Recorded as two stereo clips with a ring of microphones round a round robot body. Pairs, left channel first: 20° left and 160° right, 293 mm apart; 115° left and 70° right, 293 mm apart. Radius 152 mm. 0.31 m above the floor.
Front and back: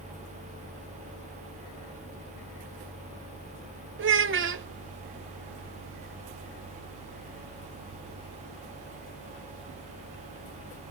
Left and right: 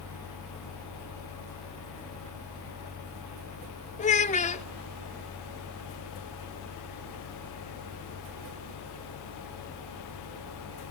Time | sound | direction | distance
4.0 | a child speaking | 170° left | 0.8 m